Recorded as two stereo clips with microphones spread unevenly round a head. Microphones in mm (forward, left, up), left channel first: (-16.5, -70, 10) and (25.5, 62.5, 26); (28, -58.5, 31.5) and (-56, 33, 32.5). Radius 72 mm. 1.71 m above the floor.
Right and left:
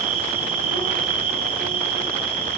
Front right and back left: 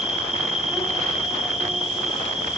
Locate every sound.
0.0 s an insect: 50° left, 1.1 m